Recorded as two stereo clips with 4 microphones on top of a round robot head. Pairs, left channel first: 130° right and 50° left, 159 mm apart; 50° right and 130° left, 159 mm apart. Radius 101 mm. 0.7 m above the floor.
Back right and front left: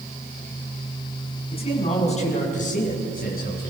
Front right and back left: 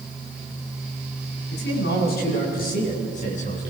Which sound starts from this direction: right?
A man speaking, at 1.5 s.